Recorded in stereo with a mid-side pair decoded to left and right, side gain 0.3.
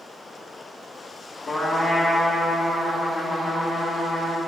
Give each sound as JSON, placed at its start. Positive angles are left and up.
{"t": 1.5, "sound": "a trumpet", "azimuth_deg": 50, "distance_m": 2.5}